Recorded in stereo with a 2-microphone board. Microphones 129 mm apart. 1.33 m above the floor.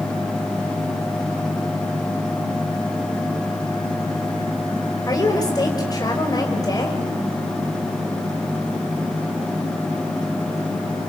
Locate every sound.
5.1 s a woman speaking: 30° left (ahead or behind), 5 m